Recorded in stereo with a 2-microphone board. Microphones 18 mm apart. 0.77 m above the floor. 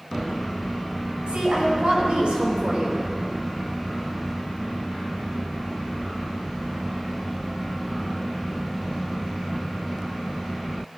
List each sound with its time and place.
1.3 s a woman speaking: 80° right, 4.5 m; by 3.0 s 65° right (ahead or behind), 3 m